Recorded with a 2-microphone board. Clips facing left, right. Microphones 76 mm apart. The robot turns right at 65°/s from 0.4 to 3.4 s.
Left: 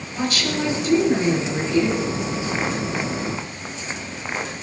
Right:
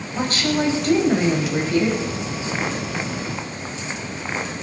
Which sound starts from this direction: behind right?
A woman speaking, at 0.1 s.